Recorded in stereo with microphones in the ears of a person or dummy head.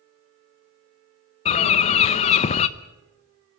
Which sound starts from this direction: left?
A bird, at 1.4 s.